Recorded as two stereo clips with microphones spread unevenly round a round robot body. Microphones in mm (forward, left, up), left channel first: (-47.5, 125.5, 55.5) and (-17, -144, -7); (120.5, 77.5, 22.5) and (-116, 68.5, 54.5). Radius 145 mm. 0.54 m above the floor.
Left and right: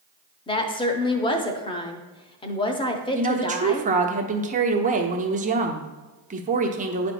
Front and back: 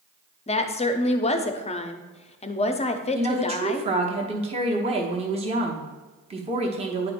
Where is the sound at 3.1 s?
115° right, 1.0 m.